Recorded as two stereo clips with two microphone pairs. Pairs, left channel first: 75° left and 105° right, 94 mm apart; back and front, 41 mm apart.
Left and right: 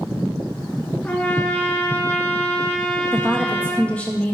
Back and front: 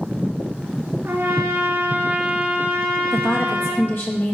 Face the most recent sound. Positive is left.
turn(degrees=150)